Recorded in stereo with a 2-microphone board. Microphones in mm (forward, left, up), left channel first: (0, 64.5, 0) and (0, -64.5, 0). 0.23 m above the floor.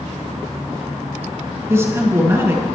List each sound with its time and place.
1.7 s a man speaking: 20° right (ahead or behind), 2.5 m